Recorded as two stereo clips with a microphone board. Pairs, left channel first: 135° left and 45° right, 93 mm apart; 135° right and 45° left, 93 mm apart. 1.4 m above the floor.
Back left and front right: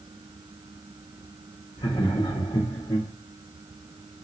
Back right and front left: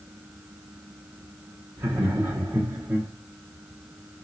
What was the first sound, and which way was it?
Laughter, 125° left.